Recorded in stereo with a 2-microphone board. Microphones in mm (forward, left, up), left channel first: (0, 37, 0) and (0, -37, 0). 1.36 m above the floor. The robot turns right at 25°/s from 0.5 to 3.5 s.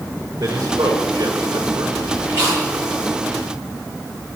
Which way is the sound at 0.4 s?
75° right (ahead or behind).